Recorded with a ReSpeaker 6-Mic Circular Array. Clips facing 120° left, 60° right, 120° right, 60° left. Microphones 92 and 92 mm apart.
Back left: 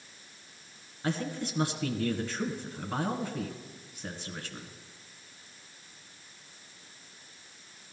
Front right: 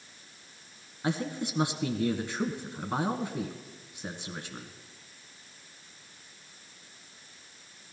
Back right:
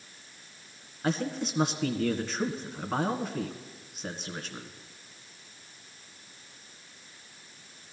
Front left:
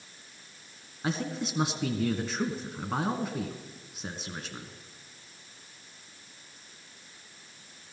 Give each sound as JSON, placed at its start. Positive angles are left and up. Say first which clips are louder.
{"t": 1.0, "sound": "a man speaking", "louder": "front right 1 dB, back right 2 dB", "azimuth_deg": -20, "distance_m": 1.8}